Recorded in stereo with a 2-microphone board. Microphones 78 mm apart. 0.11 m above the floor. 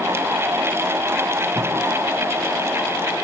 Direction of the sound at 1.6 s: 35° right (ahead or behind).